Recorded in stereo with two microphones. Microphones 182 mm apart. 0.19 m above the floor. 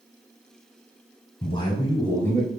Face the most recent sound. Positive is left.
turn(degrees=10)  # may be behind; listen again after turning